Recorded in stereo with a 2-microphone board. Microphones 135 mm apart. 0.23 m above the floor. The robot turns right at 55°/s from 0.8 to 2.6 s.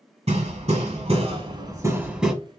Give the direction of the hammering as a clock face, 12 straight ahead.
3 o'clock.